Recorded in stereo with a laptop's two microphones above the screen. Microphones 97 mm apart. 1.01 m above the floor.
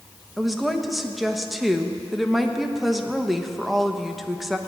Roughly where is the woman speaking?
Centre.